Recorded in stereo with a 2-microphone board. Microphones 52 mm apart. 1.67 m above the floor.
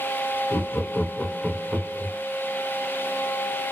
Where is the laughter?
50° left (ahead or behind), 1.3 m; by 2.1 s 55° right (ahead or behind), 0.8 m.